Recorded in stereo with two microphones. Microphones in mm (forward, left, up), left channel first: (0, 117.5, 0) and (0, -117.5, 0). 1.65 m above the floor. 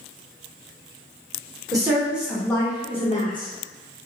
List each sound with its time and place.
1.7 s a woman speaking: 15° right (ahead or behind), 1.2 m; by 3.5 s 40° left (ahead or behind), 1.1 m